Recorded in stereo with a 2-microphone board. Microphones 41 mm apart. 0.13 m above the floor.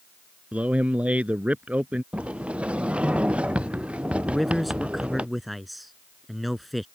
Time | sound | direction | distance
0.5 | a man speaking | 35° right (ahead or behind) | ?
2.1 | a sliding door | 30° right (ahead or behind) | ?
4.3 | a man speaking | centre (ahead or behind) | ?